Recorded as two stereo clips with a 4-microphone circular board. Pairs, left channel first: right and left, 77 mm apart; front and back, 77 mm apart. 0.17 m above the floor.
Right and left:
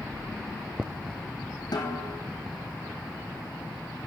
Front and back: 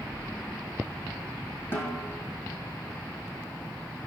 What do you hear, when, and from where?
1.7 s a snare drum: 60° right, 3 m